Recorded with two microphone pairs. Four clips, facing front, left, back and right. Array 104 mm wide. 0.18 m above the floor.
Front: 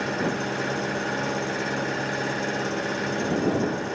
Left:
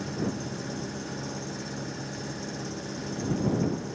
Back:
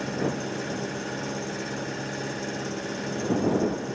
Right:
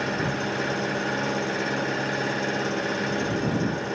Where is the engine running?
50° right.